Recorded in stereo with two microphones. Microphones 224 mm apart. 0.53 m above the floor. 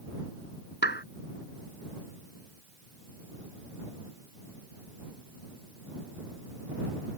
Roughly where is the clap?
Left.